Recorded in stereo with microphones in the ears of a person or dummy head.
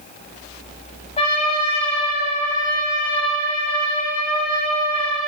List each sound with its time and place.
1.2 s a trumpet: 35° left (ahead or behind), 2.5 m